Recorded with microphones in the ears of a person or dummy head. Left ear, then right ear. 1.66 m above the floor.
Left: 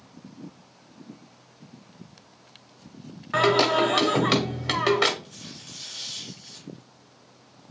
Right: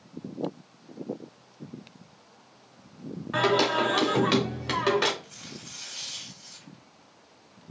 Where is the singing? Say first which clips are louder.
Left 3 dB; 15° left (ahead or behind), 0.7 m.